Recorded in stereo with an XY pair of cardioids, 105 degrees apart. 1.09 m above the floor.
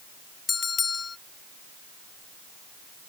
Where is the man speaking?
No man speaking in this recording.